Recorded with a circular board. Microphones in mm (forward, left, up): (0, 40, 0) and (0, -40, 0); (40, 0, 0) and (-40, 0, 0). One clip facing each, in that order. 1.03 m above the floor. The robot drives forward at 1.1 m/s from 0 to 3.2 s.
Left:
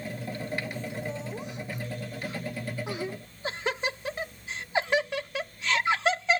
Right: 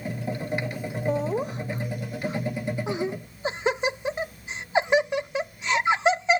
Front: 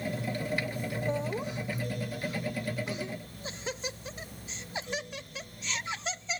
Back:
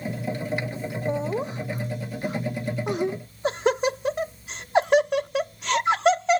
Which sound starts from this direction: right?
Laughter, at 1.1 s.